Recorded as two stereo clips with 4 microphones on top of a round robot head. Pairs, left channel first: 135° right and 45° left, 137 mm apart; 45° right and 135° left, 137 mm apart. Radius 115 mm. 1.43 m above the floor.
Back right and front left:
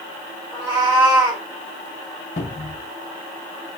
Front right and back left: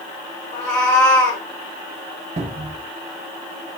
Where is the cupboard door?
Straight behind, 0.5 m.